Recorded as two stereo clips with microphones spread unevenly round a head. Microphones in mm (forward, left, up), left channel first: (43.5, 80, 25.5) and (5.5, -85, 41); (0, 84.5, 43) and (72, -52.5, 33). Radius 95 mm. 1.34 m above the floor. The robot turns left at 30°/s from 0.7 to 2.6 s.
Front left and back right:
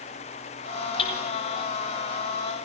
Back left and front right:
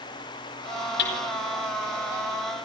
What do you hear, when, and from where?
1.0 s hammering: 140° left, 4.5 m; by 1.2 s 135° left, 4.5 m